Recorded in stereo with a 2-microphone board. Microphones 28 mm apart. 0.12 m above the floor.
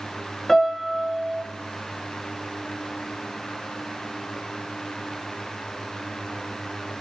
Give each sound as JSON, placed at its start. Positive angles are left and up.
{"t": 0.5, "sound": "a piano", "side_deg": 10, "distance_m": 1.1}